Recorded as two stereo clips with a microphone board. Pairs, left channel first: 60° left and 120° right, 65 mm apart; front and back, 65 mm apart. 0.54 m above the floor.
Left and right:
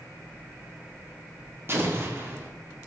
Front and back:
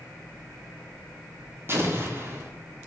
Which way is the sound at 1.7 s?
150° right.